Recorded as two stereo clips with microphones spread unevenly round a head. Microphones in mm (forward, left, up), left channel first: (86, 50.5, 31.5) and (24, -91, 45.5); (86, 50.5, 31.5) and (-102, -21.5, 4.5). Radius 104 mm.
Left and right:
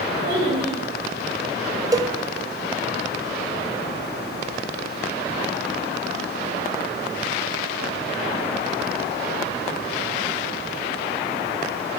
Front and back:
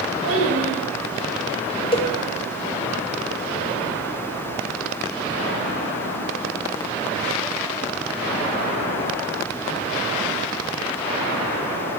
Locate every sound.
0.2 s a child speaking: 135° right, 4.5 m
1.9 s a cowbell: 45° right, 1.0 m